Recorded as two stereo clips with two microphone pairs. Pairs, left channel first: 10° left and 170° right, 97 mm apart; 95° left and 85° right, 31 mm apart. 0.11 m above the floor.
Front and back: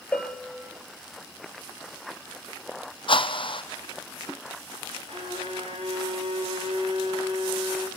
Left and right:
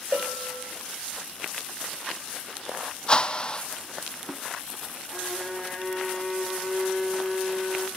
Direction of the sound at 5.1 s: 160° right.